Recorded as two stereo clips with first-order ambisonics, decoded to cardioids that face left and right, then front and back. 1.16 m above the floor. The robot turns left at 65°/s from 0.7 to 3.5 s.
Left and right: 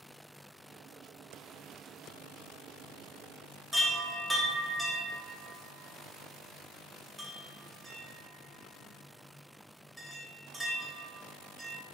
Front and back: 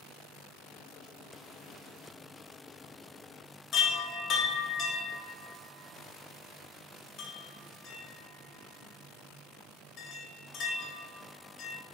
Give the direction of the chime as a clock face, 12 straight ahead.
12 o'clock.